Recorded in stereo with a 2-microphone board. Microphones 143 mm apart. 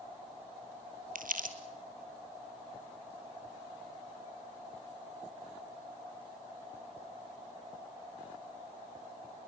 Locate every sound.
1.1 s crumpling: 80° right, 2 m